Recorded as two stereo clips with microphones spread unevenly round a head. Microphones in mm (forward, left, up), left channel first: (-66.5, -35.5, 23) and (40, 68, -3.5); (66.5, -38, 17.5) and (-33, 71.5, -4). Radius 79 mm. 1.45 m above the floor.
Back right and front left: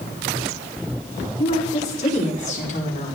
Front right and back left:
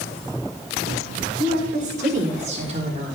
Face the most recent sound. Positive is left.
turn(degrees=-170)